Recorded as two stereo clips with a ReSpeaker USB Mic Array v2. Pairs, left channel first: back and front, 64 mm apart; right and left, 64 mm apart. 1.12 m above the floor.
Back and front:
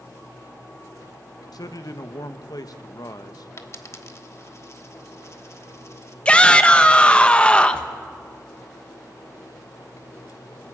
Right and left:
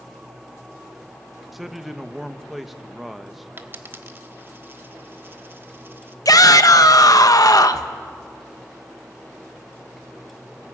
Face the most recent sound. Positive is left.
turn(degrees=-105)